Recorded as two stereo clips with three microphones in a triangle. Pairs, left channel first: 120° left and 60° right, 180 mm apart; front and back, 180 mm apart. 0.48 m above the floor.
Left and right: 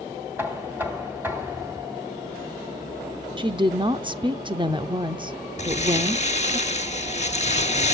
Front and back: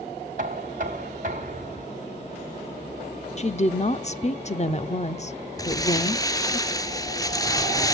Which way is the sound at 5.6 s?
70° left.